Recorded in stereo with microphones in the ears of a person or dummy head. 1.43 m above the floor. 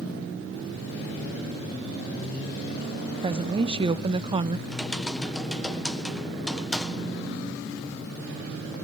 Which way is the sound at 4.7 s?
Centre (ahead or behind).